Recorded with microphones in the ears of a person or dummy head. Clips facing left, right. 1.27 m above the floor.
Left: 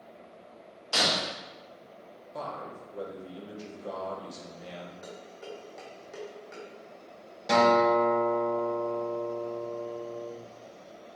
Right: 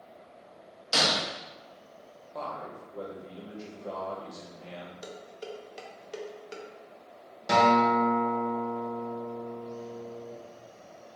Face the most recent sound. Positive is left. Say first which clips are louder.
# left 1 dB
turn(degrees=0)  # may be behind; listen again after turning